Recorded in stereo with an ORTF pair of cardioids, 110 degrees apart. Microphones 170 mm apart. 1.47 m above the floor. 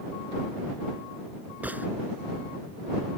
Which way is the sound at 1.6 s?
10° right.